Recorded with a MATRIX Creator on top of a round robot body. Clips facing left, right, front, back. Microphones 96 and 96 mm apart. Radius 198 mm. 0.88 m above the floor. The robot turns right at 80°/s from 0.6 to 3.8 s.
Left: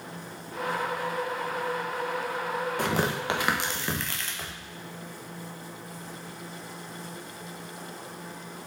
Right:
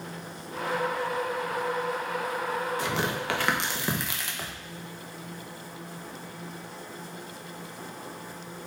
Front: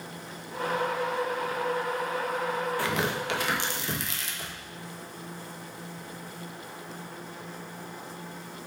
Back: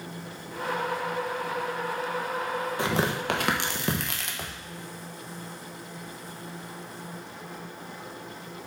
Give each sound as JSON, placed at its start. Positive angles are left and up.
{"t": 2.8, "sound": "tearing paper", "azimuth_deg": 115, "distance_m": 1.3}